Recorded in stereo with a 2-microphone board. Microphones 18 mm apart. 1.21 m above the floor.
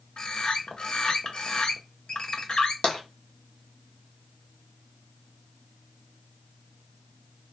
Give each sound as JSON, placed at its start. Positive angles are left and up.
{"t": 0.2, "sound": "a bird", "side_deg": 45, "distance_m": 0.5}
{"t": 2.8, "sound": "tapping", "side_deg": 65, "distance_m": 0.9}